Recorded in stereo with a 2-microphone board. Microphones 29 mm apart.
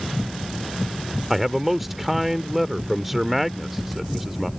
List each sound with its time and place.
1.3 s a man speaking: 10° right (ahead or behind)